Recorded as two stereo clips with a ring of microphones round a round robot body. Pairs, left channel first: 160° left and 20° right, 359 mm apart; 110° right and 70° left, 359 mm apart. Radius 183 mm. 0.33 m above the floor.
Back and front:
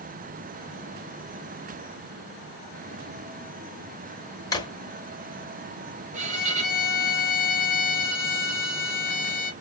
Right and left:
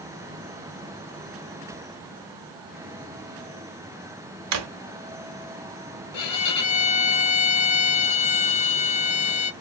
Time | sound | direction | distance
4.5 | a drawer | 80° left | 0.7 m
6.1 | a violin | 95° right | 0.7 m